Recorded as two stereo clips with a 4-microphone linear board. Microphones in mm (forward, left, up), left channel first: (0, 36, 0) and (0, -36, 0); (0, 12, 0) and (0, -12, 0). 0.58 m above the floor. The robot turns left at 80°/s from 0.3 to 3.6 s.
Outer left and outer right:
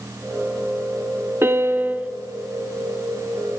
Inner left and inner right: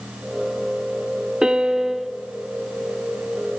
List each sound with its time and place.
1.4 s a piano: 90° right, 0.7 m; by 2.1 s 145° right, 0.7 m